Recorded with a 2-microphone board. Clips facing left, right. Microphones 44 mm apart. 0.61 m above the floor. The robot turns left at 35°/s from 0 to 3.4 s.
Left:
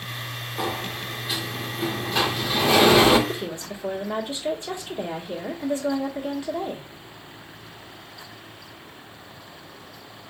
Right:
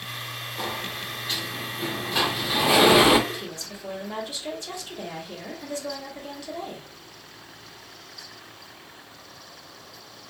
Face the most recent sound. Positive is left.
turn(degrees=20)  # may be behind; listen again after turning